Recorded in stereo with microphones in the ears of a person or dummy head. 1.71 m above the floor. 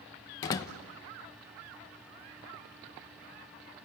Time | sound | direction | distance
0.4 | a door slam | 20° left (ahead or behind) | 0.8 m